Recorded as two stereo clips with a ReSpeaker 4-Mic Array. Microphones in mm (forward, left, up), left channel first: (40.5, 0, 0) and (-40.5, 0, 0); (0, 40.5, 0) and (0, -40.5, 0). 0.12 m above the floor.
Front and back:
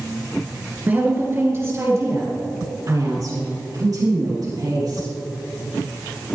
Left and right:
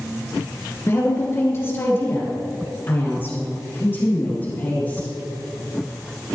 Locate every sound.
0.9 s a woman speaking: 125° left, 2 m; by 5.1 s 155° left, 4.5 m